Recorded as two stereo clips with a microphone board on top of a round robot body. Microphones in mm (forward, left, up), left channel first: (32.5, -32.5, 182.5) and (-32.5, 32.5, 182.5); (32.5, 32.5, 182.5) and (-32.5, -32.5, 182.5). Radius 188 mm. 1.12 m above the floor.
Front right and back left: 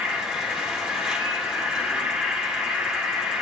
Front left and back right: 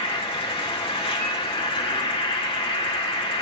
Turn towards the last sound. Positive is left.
turn(degrees=55)